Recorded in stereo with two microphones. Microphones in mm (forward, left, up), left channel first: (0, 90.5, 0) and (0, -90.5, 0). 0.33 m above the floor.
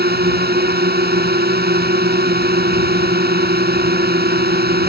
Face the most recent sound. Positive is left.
turn(degrees=-60)  # may be behind; listen again after turning